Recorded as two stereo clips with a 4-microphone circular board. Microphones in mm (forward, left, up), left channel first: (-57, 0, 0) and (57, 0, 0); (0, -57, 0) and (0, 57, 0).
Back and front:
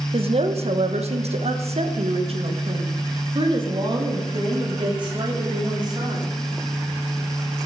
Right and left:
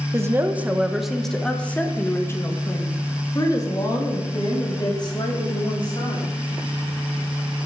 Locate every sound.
0.1 s a woman speaking: 30° left, 1.1 m; by 6.3 s 50° right, 3.5 m